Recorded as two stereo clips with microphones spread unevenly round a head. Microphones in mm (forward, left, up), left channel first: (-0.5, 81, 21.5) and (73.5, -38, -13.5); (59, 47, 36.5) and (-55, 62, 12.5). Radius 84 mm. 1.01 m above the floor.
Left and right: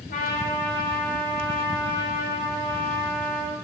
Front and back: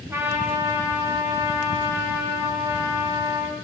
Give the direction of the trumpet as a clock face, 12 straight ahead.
8 o'clock.